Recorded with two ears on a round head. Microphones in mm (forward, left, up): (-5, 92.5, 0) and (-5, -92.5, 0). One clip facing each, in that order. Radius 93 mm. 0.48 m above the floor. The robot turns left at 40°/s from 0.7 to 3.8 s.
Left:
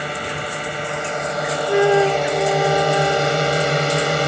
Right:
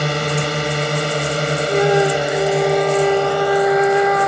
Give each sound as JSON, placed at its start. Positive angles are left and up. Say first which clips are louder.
{"t": 0.0, "sound": "a drone", "louder": "right 6 dB", "azimuth_deg": -105}
{"t": 1.7, "sound": "a flute", "louder": "left 1 dB", "azimuth_deg": 10}